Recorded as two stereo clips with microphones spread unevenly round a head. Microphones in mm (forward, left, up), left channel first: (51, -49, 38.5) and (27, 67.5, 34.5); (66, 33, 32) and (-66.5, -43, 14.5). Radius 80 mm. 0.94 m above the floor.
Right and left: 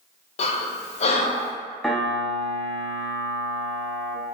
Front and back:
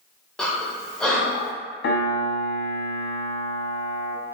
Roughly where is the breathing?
Ahead right.